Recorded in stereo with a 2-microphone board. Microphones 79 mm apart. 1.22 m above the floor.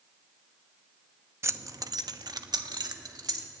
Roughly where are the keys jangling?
Right.